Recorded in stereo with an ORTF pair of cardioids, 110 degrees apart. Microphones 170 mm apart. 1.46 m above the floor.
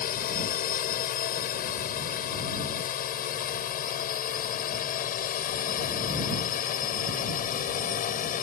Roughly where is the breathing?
I don't hear breathing.